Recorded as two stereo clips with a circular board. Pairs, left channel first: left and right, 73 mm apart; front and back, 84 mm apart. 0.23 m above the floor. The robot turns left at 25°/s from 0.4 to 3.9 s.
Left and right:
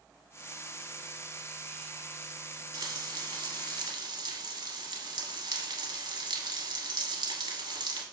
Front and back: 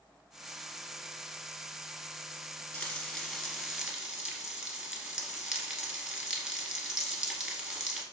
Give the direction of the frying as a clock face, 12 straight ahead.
2 o'clock.